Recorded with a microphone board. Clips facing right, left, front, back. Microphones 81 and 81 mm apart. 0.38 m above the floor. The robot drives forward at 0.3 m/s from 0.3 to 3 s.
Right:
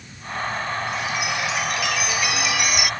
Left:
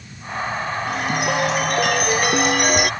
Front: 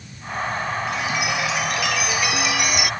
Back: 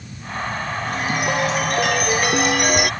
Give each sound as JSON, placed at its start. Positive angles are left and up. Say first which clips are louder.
{"t": 0.9, "sound": "a chime", "louder": "left 4 dB, back 2 dB", "azimuth_deg": 130}